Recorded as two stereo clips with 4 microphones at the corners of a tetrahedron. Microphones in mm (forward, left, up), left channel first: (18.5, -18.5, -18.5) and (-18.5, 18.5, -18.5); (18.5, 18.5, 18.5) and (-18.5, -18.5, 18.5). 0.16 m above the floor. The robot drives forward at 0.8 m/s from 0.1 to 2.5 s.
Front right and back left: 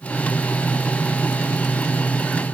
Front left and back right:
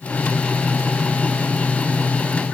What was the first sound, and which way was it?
Only background noise.